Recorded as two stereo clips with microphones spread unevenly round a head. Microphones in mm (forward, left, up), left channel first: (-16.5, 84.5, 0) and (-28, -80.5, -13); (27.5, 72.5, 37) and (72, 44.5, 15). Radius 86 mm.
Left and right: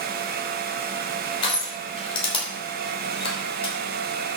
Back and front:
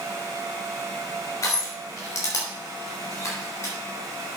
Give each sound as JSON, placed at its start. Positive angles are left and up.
{"t": 1.4, "sound": "crushing", "azimuth_deg": 145, "distance_m": 3.5}